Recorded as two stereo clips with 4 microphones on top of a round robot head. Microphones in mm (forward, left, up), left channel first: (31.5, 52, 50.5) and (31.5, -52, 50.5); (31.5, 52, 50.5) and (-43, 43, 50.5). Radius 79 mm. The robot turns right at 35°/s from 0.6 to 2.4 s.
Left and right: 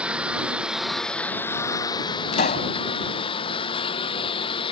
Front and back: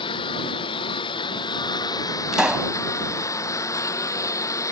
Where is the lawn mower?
10° right; by 4.7 s 55° left.